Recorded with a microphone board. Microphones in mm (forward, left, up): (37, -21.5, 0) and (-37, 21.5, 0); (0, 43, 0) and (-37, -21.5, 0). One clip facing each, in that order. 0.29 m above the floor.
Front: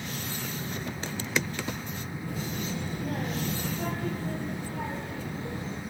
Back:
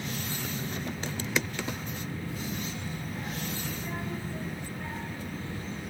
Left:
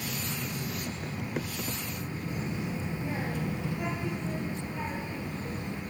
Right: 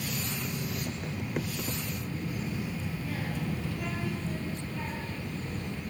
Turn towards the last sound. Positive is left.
turn(degrees=-15)